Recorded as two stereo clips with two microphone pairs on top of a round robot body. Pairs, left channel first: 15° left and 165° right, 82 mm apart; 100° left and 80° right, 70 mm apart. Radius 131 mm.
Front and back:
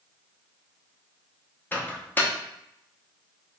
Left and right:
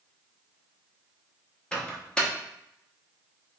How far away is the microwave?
About 0.8 m.